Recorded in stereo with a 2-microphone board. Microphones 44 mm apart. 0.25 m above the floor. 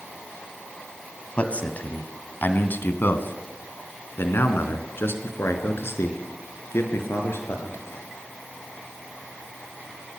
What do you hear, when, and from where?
1.4 s a man speaking: 30° left (ahead or behind), 2.5 m; by 8.1 s 70° left (ahead or behind), 5.5 m